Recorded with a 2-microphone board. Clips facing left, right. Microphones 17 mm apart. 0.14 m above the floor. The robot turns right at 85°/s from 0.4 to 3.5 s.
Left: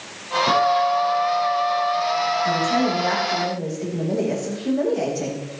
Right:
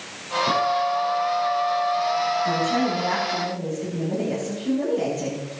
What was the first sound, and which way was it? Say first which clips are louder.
A guitar: left 4 dB; 150° left.